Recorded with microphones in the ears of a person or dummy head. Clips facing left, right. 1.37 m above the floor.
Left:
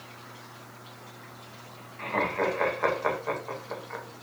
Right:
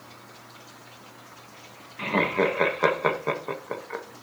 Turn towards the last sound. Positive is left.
turn(degrees=-50)  # may be behind; listen again after turning